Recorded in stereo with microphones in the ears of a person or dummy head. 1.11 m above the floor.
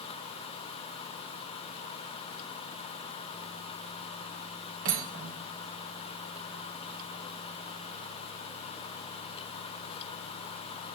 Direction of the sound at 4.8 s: 75° right (ahead or behind).